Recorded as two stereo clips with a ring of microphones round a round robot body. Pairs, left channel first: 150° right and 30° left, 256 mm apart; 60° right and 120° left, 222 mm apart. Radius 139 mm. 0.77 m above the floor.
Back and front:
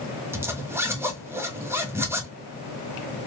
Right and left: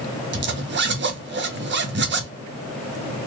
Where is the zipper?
110° left, 1.1 m.